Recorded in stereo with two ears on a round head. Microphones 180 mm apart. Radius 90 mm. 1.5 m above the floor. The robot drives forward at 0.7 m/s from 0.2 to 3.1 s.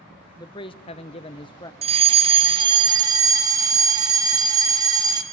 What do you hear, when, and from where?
0.4 s a man speaking: 20° left (ahead or behind), 0.7 m
1.8 s a fire alarm: 30° right (ahead or behind), 0.9 m; by 5.2 s 20° right (ahead or behind), 1.3 m